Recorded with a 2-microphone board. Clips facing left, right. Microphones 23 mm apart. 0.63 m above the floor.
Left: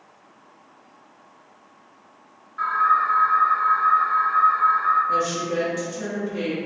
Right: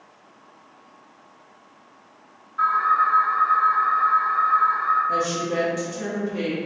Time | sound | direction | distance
2.6 | an alarm | 5° left (ahead or behind) | 1.5 m
5.1 | a woman speaking | centre (ahead or behind) | 0.5 m